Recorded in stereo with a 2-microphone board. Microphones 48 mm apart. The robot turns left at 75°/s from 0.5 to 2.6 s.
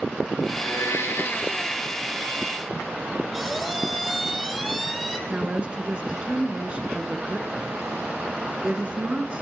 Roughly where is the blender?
Behind left.